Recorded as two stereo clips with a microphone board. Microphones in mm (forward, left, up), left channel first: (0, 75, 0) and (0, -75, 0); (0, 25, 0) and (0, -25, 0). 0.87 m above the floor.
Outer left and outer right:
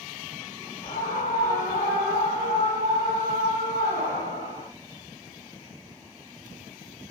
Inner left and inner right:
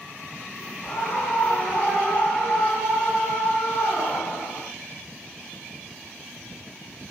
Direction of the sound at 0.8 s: 60° left (ahead or behind).